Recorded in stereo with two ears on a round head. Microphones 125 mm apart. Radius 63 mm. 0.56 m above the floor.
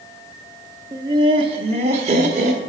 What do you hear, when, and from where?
0.9 s laughter: 25° right (ahead or behind), 0.8 m; by 2.6 s 50° right (ahead or behind), 1.9 m